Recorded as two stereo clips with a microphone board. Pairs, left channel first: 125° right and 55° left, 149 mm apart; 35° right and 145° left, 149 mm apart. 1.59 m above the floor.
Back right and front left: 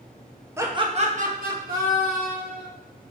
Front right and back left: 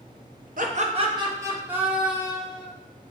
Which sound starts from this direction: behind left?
Laughter, at 0.6 s.